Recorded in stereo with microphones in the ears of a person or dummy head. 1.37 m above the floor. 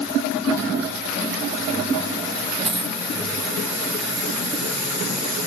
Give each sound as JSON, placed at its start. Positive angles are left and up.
{"t": 2.6, "sound": "a dropped coin", "side_deg": 5}